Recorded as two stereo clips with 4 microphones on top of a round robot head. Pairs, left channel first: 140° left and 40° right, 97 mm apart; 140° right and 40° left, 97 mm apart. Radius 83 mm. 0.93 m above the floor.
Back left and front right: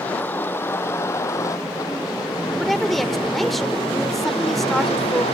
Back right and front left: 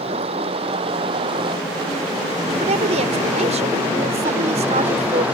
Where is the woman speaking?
50° left.